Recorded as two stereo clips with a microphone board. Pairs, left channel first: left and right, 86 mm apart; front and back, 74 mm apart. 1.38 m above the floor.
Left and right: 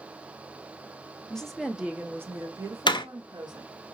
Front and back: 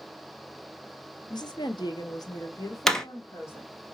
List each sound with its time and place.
1.3 s a woman speaking: 10° left, 0.8 m; by 3.7 s 60° right, 1.3 m
2.9 s a door slam: 85° left, 0.6 m